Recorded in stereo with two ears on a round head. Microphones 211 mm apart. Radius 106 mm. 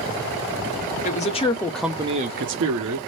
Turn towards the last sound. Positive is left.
turn(degrees=-70)  # may be behind; listen again after turning